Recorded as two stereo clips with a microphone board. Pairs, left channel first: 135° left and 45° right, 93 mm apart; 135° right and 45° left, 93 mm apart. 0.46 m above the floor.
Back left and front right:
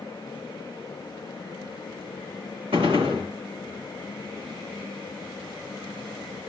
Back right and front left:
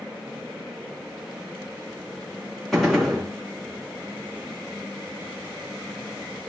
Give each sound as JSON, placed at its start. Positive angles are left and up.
{"t": 2.7, "sound": "a gunshot", "azimuth_deg": -45, "distance_m": 2.5}